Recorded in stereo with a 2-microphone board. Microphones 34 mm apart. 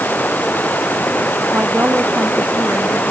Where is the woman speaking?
85° right.